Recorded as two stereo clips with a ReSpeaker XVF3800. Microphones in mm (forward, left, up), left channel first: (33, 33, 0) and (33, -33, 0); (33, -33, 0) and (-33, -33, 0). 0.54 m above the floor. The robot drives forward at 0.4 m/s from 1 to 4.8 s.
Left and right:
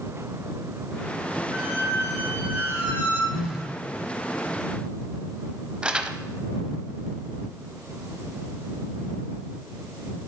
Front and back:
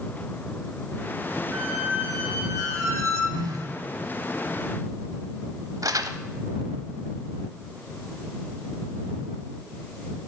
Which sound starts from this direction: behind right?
A squeak, at 1.5 s.